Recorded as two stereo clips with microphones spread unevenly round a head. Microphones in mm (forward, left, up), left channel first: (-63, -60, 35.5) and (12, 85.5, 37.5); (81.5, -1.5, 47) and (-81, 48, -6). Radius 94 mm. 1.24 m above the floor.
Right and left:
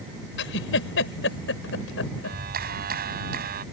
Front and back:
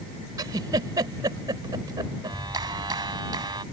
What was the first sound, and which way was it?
A giggle, 120° right.